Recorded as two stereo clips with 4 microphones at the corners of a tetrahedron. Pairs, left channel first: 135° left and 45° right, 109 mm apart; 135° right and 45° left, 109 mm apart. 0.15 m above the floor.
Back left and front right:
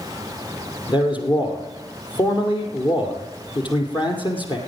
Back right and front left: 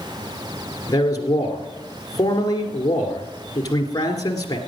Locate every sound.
0.9 s a man speaking: 175° left, 2.5 m